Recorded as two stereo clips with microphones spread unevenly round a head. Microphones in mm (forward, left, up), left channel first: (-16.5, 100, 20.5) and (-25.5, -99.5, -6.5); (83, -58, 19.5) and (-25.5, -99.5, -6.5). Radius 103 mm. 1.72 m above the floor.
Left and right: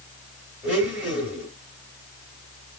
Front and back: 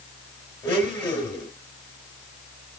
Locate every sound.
0.6 s a blender: 5° right, 3.5 m